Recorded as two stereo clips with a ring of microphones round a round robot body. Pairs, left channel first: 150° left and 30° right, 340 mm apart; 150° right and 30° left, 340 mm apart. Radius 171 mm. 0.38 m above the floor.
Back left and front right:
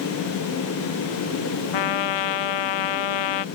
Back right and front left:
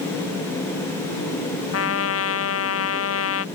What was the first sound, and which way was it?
A trumpet, 160° left.